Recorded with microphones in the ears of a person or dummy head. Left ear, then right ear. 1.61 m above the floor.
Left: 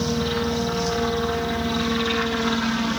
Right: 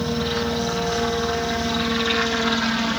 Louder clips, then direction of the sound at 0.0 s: Even; 15° right (ahead or behind).